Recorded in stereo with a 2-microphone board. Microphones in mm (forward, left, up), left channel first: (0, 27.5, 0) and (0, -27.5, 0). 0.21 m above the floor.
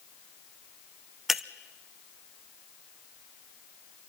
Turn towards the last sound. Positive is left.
turn(degrees=0)  # may be behind; listen again after turning